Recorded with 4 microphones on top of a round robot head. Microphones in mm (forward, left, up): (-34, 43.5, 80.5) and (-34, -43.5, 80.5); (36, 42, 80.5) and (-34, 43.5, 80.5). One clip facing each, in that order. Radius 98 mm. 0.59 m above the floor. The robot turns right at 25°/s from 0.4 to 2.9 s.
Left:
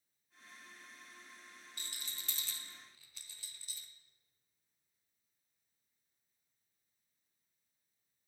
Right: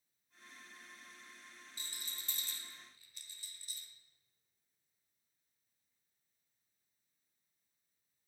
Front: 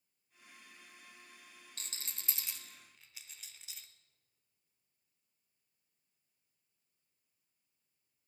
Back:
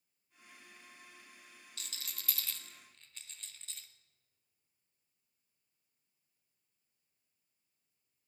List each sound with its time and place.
1.8 s a rattle: 50° left, 0.7 m; by 3.9 s 80° left, 0.7 m